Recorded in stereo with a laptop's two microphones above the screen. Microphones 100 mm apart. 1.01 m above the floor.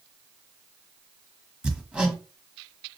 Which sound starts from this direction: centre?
Hammering, at 1.6 s.